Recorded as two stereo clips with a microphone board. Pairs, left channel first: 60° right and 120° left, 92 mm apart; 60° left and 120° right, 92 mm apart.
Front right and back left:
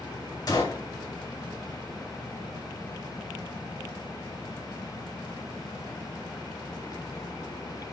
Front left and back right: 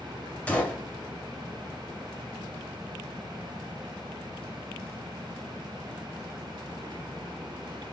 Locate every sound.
0.5 s a gunshot: 15° right, 1.8 m